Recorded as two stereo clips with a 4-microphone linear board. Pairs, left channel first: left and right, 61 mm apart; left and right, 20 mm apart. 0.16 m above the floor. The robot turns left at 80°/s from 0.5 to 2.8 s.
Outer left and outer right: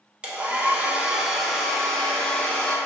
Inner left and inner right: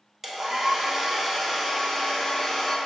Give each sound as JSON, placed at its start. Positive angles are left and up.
{"t": 0.2, "sound": "a hair dryer", "side_deg": -20, "distance_m": 0.6}